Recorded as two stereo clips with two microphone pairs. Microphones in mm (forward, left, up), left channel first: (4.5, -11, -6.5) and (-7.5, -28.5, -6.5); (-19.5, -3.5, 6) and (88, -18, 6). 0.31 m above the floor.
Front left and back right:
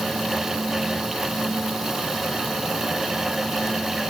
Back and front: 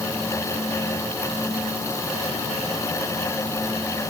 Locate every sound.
Only background noise.